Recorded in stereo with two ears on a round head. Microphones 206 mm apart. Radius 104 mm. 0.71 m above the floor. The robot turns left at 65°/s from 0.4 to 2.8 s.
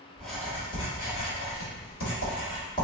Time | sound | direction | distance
0.2 | writing | 5° left (ahead or behind) | 1.4 m